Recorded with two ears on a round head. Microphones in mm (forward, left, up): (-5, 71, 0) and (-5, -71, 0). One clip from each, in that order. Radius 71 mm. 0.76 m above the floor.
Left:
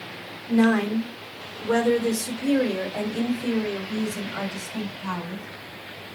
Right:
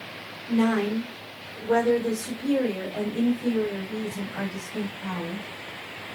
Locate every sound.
0.5 s a woman speaking: 25° left (ahead or behind), 1.6 m; by 5.5 s 85° left, 4.5 m